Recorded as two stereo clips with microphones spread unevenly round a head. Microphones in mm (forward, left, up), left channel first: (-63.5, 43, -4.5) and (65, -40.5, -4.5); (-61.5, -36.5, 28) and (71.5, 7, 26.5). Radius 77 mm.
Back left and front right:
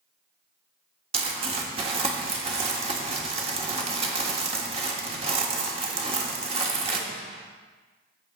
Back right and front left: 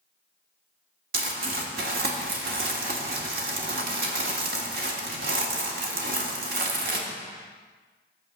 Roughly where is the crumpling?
Ahead.